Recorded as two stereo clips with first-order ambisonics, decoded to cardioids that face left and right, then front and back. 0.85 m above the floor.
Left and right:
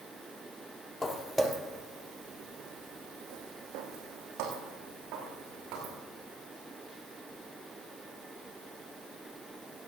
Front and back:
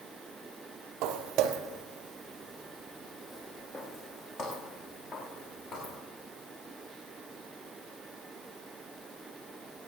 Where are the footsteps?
165° left, 1.4 m; by 6.0 s 60° right, 4.5 m.